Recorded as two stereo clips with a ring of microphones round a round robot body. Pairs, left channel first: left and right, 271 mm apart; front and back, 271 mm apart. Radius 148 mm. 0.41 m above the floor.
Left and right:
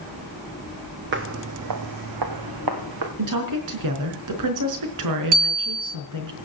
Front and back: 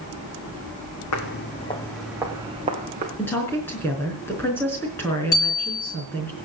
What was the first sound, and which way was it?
Footsteps, 40° right.